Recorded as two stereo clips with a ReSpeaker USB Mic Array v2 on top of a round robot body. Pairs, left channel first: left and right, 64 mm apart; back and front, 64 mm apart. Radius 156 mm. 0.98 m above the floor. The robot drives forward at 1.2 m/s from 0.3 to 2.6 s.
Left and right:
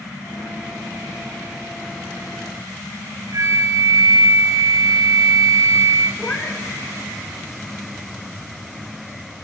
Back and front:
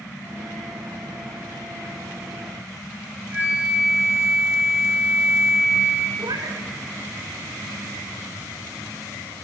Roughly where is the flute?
Ahead right.